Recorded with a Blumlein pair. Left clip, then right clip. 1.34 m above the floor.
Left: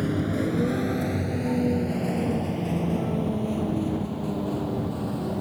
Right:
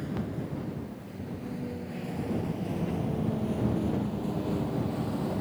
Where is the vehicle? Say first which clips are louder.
Left 10 dB; 60° left; by 5.4 s 10° left.